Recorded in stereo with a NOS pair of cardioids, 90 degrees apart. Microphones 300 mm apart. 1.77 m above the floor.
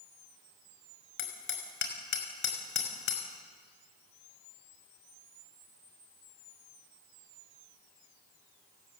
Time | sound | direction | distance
1.2 | hammering | 45° left | 6 m